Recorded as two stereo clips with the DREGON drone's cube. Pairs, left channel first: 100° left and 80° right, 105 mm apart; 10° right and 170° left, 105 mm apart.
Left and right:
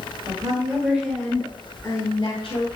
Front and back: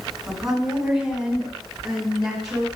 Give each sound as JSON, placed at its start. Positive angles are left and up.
{"t": 0.3, "sound": "a woman speaking", "azimuth_deg": -110, "distance_m": 1.9}